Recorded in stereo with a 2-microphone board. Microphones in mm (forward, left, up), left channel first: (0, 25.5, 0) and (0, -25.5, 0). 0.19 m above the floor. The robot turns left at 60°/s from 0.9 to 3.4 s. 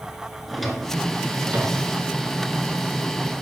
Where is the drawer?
Centre (ahead or behind), 1.5 m; by 1.9 s 50° right (ahead or behind), 1.5 m.